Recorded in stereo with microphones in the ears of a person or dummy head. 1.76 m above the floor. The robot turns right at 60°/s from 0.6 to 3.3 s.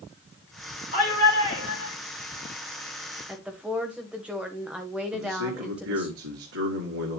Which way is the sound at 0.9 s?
50° left.